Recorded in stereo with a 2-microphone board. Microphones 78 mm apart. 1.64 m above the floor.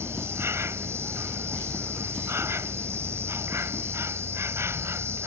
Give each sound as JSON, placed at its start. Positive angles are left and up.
{"t": 0.0, "sound": "an insect", "side_deg": -35}